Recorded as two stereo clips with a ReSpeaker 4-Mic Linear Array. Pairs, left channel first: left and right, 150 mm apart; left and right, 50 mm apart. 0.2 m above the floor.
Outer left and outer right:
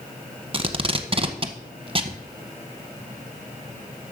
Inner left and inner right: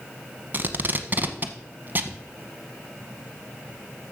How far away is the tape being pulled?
About 0.8 m.